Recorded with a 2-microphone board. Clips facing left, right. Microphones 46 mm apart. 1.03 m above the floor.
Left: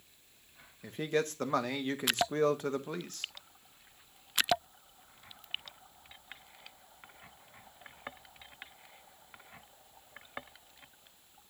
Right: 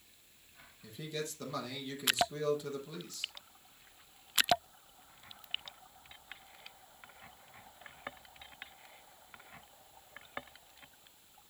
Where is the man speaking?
50° left (ahead or behind), 0.9 m.